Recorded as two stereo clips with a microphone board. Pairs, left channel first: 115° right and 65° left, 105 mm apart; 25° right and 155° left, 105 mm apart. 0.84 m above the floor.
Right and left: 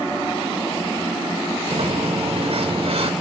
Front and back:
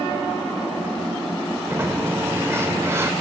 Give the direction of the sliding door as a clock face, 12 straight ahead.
9 o'clock.